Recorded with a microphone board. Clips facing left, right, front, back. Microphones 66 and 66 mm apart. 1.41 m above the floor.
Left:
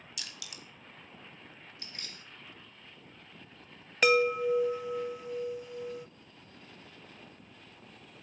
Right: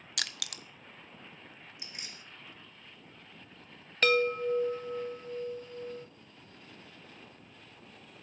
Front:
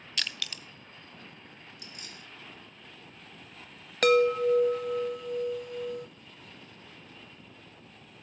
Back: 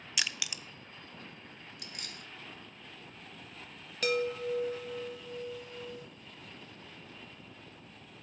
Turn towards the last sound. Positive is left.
turn(degrees=15)